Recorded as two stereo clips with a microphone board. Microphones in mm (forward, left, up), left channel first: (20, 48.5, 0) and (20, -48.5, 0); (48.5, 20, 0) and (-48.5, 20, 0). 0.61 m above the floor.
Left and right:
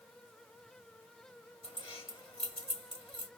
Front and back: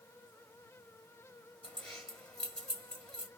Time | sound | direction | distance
1.6 | keys jangling | 85° left | 1.8 m